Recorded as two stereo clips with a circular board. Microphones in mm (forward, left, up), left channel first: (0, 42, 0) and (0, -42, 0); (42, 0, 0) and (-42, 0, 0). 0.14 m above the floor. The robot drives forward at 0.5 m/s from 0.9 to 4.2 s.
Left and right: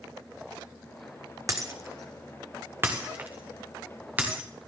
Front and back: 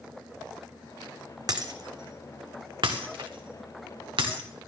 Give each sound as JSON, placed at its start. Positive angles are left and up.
{"t": 1.5, "sound": "breaking glass", "azimuth_deg": -140, "distance_m": 1.2}